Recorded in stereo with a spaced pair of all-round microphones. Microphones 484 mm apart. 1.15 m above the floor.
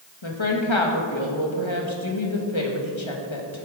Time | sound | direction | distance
0.2 | a woman speaking | 75° left (ahead or behind) | 1.8 m